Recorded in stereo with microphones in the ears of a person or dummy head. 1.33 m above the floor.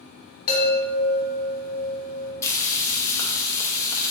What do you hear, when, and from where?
0.5 s a chime: 60° left (ahead or behind), 1.3 m
2.4 s frying: 20° left (ahead or behind), 0.6 m